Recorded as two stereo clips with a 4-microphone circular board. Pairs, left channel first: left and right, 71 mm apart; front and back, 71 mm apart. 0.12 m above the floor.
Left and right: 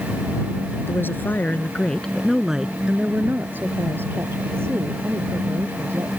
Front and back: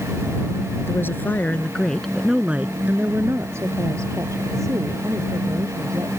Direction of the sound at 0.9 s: 45° left.